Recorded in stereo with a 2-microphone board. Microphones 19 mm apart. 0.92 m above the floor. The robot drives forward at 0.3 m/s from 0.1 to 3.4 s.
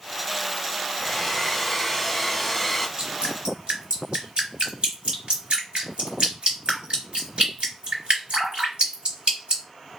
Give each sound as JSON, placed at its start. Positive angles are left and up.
{"t": 1.0, "sound": "a hair dryer", "side_deg": 10, "distance_m": 1.2}
{"t": 3.0, "sound": "dripping", "side_deg": -65, "distance_m": 2.5}